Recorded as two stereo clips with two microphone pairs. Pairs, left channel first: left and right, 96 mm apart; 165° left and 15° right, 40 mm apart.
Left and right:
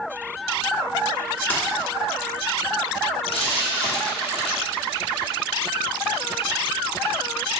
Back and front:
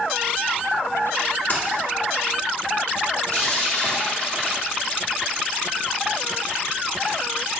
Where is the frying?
105° left, 1.3 m.